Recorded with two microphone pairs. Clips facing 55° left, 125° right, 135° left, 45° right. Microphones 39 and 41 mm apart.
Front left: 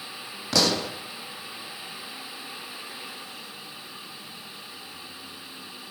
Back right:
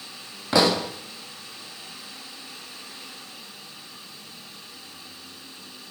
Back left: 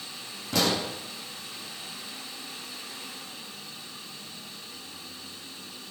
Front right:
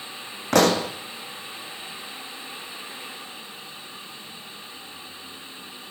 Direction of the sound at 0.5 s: 60° right.